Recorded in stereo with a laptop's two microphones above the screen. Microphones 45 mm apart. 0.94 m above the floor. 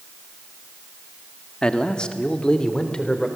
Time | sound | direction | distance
1.6 | a man speaking | 20° left (ahead or behind) | 1.6 m